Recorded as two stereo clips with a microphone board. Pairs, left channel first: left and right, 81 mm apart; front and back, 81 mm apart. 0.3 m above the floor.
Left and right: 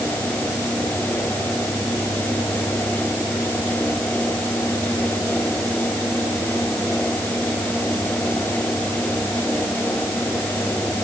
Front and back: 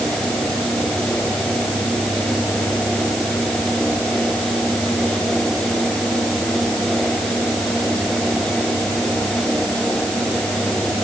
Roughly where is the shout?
I don't hear a shout.